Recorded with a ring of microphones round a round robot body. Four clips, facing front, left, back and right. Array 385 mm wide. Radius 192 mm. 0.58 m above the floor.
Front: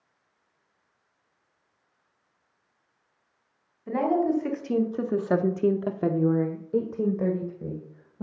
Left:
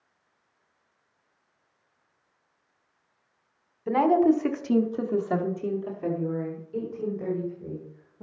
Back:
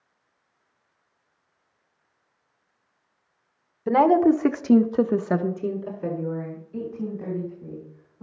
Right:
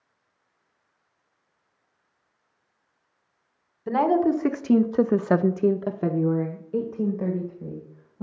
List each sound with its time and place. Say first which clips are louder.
3.9 s a woman speaking: left 1 dB, back 7 dB; 175° right, 1.6 m; by 8.2 s 20° right, 3 m